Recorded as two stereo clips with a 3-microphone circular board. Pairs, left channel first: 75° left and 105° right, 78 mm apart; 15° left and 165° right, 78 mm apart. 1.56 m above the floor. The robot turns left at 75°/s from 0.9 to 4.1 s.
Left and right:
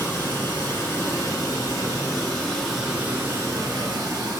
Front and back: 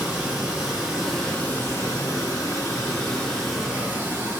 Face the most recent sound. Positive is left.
turn(degrees=-120)